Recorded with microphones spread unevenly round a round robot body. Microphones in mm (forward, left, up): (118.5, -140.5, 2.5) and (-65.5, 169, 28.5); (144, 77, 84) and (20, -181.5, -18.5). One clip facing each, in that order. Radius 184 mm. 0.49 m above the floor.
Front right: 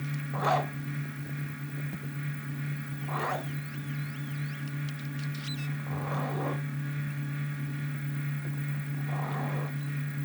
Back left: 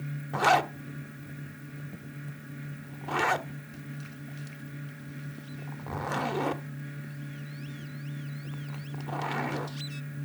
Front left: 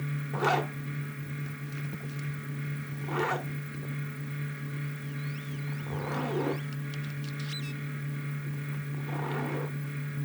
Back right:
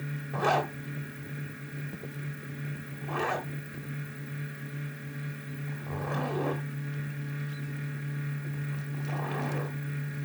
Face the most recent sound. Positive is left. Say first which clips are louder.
# back left 4 dB, back right 1 dB
turn(degrees=155)